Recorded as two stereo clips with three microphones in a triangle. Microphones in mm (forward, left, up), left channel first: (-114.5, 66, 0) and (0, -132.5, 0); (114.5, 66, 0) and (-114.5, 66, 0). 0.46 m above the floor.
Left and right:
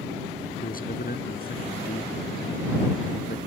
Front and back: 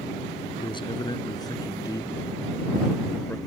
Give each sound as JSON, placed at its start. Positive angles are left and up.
{"t": 0.6, "sound": "a man speaking", "azimuth_deg": 70}